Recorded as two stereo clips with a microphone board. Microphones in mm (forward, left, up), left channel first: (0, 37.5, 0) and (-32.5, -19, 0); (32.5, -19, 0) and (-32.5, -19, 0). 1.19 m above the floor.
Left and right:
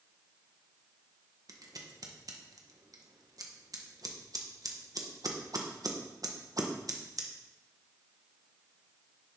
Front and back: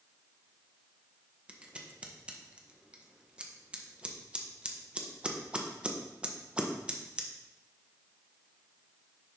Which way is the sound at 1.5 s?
105° right.